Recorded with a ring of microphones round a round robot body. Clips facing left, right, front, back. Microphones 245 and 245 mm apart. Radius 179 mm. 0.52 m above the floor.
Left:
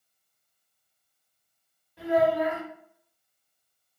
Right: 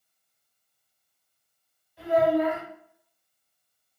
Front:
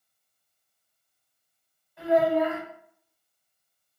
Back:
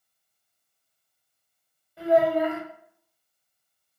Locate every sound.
2.0 s a child speaking: 125° left, 1.6 m